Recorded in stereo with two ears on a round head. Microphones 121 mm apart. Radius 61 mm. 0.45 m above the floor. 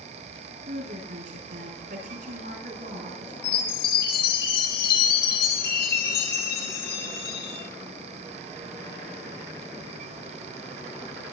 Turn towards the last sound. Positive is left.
turn(degrees=80)